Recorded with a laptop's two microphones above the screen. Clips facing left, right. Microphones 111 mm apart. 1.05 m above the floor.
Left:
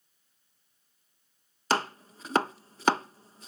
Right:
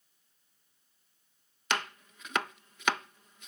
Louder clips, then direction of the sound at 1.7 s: Left 6 dB; 35° left (ahead or behind).